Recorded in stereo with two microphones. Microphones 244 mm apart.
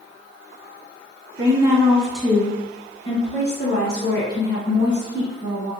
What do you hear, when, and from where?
1.4 s a woman speaking: 20° right (ahead or behind), 1.3 m; by 5.7 s 55° left (ahead or behind), 2.5 m